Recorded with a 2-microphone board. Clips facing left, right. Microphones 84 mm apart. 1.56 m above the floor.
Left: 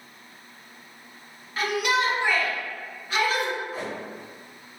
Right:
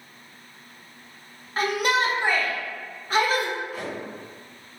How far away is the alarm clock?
I don't hear an alarm clock.